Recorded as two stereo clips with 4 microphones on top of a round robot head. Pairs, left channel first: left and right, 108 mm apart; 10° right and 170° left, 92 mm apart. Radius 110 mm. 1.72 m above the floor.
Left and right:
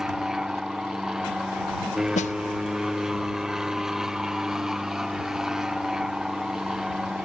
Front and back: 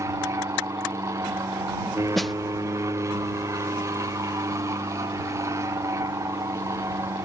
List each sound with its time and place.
0.0 s an aircraft: 170° right
2.1 s a snare drum: 80° left